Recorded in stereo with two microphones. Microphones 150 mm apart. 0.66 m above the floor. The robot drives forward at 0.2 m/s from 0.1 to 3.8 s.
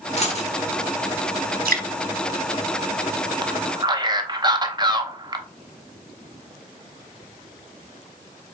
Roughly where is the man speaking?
Right.